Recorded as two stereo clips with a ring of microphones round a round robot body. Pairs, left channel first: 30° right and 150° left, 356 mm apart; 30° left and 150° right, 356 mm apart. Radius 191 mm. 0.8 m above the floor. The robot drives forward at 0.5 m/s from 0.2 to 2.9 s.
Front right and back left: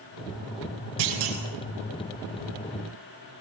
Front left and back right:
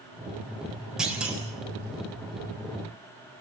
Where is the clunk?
120° left, 6 m; by 1.4 s 125° left, 6 m.